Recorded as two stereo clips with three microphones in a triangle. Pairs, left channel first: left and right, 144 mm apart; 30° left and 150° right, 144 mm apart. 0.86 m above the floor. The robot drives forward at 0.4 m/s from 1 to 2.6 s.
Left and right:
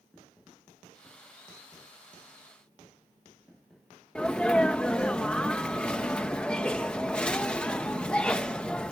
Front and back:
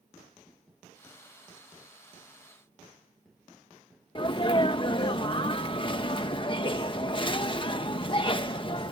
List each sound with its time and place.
4.2 s a sneeze: 10° left